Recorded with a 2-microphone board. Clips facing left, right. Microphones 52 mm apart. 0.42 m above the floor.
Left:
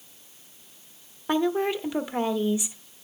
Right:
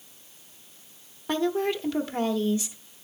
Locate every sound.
1.3 s a woman speaking: 15° left (ahead or behind), 0.9 m